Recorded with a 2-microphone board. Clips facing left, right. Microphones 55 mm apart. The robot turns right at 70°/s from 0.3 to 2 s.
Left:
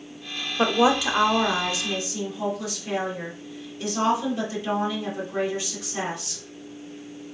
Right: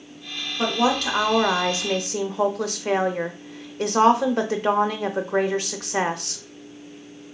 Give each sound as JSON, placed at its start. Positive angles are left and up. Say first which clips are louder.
{"t": 0.6, "sound": "a woman speaking", "louder": "left 2 dB", "azimuth_deg": 145, "distance_m": 0.6}